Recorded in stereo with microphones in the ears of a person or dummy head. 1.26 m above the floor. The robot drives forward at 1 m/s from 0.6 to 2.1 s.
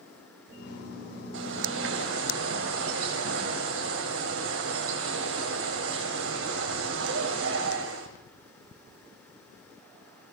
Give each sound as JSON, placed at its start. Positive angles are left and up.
{"t": 1.3, "sound": "a bird", "side_deg": -75, "distance_m": 3.5}